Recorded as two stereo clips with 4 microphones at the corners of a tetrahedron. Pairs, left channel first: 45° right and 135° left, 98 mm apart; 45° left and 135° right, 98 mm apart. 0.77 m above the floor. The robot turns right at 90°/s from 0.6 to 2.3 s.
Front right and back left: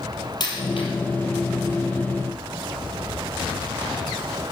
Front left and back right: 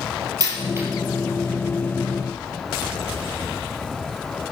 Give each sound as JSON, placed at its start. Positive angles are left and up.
{"t": 0.4, "sound": "a dropped coin", "azimuth_deg": -85, "distance_m": 4.5}